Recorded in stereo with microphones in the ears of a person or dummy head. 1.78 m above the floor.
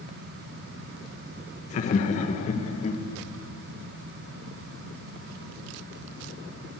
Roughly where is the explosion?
I don't hear an explosion.